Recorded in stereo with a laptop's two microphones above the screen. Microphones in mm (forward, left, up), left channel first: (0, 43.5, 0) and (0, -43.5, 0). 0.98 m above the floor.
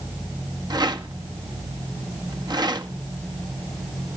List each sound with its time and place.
0.7 s a rattle: 50° right (ahead or behind), 1.6 m